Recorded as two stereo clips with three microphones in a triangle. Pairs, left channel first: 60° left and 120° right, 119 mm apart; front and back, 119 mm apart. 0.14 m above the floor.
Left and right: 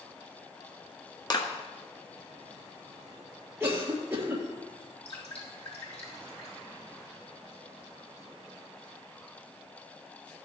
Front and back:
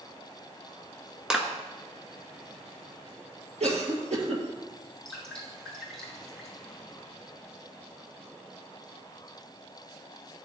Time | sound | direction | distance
1.3 | a clap | 95° left | 1.2 m
3.6 | a cough | 175° left | 2.5 m
5.0 | dripping | 90° left | 4.5 m